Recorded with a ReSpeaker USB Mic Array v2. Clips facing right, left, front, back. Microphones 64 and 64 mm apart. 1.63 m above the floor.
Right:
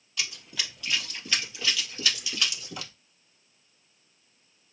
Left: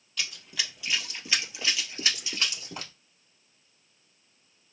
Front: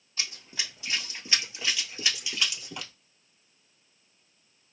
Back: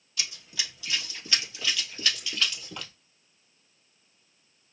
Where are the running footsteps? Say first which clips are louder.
Even, even; 10° right, 2 m; by 2.9 s 80° left, 2 m.